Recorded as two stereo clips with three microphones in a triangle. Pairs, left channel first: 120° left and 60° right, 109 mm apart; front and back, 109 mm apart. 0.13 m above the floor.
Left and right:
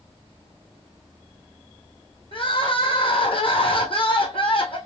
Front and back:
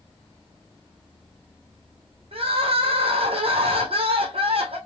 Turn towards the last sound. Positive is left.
turn(degrees=150)